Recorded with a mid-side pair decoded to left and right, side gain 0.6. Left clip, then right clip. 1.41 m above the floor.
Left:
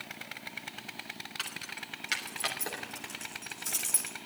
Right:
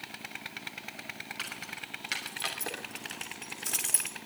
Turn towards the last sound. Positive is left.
turn(degrees=-20)